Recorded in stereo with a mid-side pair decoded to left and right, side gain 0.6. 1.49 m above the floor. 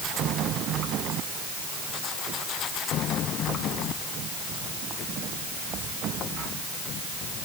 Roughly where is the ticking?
No ticking in this recording.